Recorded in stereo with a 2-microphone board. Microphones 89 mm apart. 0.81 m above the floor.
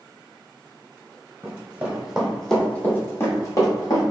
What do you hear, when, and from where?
1.4 s running footsteps: 25° right (ahead or behind), 1.5 m; by 4.0 s 45° left (ahead or behind), 1.7 m